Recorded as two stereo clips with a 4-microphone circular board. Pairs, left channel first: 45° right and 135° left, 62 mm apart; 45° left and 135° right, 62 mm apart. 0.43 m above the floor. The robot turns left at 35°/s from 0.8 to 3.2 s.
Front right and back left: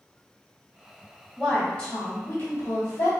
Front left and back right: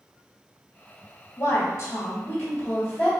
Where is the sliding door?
I don't hear a sliding door.